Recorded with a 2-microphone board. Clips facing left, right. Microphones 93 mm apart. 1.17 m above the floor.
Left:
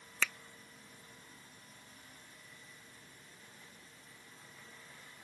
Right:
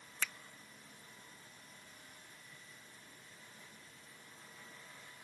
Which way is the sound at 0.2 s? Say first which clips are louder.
Left 5 dB; 85° left.